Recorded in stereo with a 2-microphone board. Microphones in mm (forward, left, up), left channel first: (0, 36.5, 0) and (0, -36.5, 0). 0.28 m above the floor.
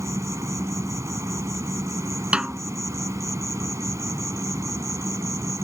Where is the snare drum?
15° right (ahead or behind).